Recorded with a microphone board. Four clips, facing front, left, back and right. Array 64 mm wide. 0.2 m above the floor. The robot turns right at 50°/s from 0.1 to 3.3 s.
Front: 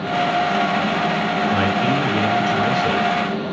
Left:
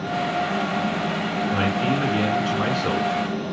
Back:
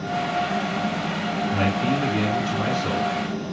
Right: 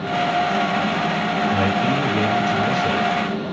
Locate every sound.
1.5 s a man speaking: 15° left, 3 m; by 3.5 s 105° left, 3 m